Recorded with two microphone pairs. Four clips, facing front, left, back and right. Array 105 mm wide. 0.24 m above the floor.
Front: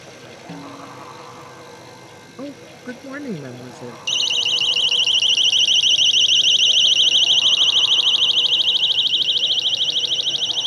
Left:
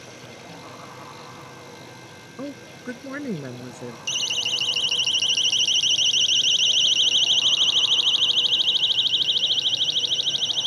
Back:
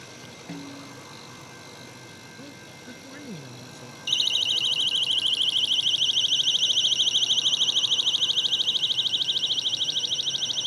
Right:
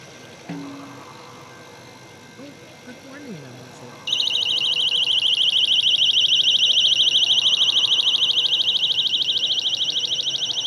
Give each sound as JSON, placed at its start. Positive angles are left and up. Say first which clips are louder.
{"t": 0.5, "sound": "a snare drum", "louder": "right 10 dB, front 4 dB", "azimuth_deg": -90}
{"t": 2.4, "sound": "a woman speaking", "louder": "left 7 dB, front 14 dB", "azimuth_deg": 30}
{"t": 4.1, "sound": "a siren", "louder": "right 2 dB, front 4 dB", "azimuth_deg": 20}